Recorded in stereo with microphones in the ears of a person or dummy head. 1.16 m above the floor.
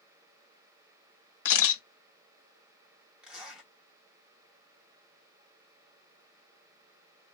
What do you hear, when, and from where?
1.4 s a camera shutter: 40° left (ahead or behind), 1.4 m
3.2 s a zipper: 10° right (ahead or behind), 1.5 m